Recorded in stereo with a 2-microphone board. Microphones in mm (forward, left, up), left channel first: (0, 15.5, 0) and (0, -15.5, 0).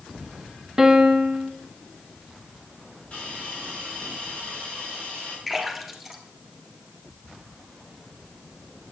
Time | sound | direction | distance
0.8 | a piano | 15° right (ahead or behind) | 0.7 m
3.1 | a hiss | 40° left (ahead or behind) | 6 m
5.5 | a splash | centre (ahead or behind) | 1.9 m